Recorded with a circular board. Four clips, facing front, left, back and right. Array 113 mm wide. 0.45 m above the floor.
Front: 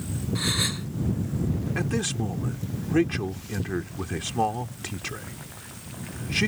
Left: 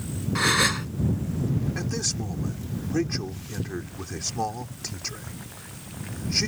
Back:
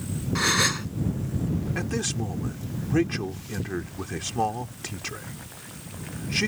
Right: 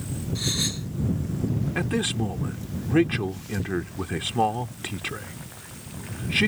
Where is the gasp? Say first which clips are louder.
Left 11 dB, back 7 dB; 120° left.